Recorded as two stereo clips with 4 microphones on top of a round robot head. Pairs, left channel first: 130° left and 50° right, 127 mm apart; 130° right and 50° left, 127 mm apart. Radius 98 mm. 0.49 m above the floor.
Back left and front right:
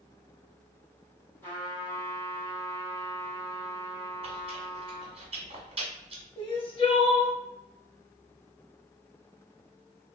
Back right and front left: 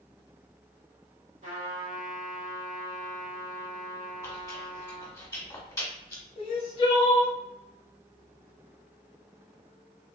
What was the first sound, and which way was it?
A trumpet, 55° left.